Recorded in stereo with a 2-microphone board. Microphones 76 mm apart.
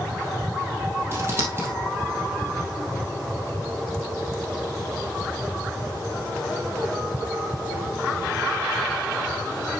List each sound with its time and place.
1.1 s scissors: 35° right (ahead or behind), 2.5 m